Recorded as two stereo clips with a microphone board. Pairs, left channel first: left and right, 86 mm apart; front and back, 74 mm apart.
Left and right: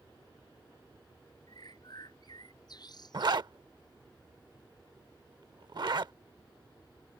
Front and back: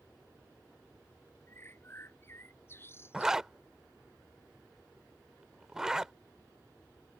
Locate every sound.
1.5 s a bird: 55° left
3.1 s a zipper: 100° right